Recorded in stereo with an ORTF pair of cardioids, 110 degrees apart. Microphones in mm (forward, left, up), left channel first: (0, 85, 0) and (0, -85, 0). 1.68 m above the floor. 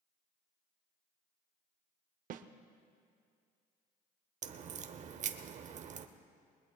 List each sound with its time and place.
2.3 s a snare drum: 55° right, 0.7 m
4.4 s a crack: 45° right, 0.8 m